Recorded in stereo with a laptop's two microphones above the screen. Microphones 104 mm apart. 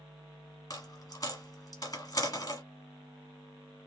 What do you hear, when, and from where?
0.7 s a dropped coin: 35° left (ahead or behind), 1.2 m